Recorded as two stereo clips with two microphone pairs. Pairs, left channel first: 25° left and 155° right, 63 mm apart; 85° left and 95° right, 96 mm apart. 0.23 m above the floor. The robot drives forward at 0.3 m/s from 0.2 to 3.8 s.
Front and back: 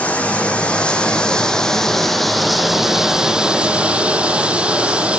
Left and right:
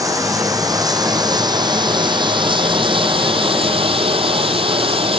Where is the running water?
40° right, 1.6 m; by 5.2 s 85° right, 1.1 m.